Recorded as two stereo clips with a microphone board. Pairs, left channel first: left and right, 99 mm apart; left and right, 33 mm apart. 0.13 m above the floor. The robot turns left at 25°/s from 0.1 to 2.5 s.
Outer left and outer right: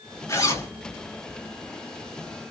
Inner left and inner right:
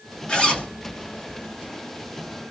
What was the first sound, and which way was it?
A zipper, 30° left (ahead or behind).